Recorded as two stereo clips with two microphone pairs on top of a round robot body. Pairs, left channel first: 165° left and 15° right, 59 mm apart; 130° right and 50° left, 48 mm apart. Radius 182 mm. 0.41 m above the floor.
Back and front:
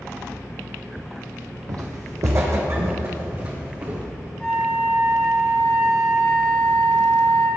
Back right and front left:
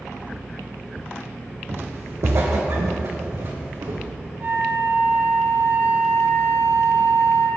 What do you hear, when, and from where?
1.7 s footsteps: 10° left, 1.6 m; by 4.1 s 40° left, 3.5 m
4.4 s a flute: 90° left, 3.5 m